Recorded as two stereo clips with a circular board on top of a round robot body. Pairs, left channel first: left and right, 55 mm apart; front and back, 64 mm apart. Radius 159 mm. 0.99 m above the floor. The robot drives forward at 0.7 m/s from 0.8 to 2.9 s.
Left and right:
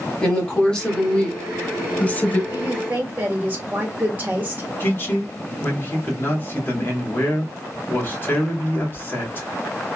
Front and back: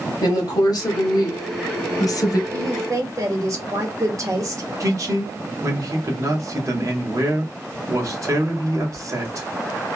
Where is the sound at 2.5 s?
140° right, 1.6 m; by 4.6 s 150° right, 1.8 m.